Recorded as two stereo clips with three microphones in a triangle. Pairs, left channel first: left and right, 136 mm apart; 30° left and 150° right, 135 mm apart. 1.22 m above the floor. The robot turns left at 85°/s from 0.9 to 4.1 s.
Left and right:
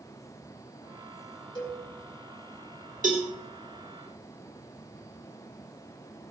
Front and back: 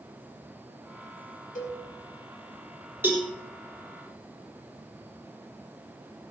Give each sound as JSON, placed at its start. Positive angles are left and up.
{"t": 1.6, "sound": "a cowbell", "azimuth_deg": 35, "distance_m": 4.5}
{"t": 3.0, "sound": "a cowbell", "azimuth_deg": -75, "distance_m": 3.5}